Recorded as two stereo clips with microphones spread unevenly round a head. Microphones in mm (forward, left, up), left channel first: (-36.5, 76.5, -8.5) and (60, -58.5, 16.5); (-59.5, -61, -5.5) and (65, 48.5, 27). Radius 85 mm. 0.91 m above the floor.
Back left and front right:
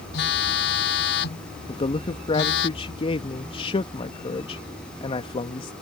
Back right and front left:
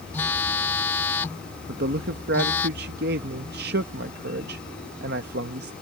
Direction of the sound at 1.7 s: 75° left.